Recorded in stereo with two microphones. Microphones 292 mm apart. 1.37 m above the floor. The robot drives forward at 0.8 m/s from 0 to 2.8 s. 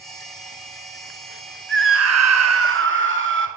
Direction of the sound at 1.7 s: 40° right (ahead or behind).